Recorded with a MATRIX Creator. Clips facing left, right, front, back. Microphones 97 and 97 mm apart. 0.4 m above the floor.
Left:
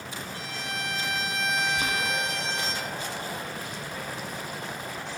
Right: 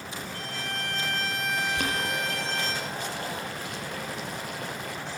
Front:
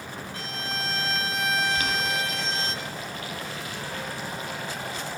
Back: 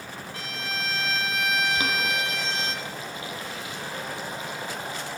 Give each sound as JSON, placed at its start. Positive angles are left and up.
{"t": 0.3, "sound": "a violin", "azimuth_deg": -55, "distance_m": 4.5}
{"t": 1.8, "sound": "boiling", "azimuth_deg": -115, "distance_m": 8.5}